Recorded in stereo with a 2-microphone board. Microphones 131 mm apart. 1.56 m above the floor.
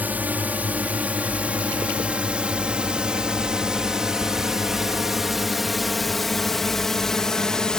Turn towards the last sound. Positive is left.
turn(degrees=5)  # may be behind; listen again after turning